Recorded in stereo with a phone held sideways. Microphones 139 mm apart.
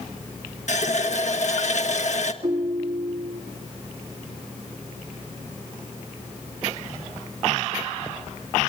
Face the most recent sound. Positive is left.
turn(degrees=-45)  # may be behind; listen again after turning